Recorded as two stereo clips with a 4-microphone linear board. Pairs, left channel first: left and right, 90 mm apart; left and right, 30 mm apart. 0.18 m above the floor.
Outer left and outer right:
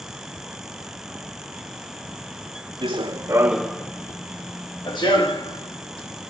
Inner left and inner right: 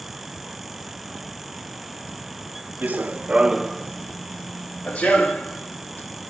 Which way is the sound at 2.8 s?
70° right (ahead or behind).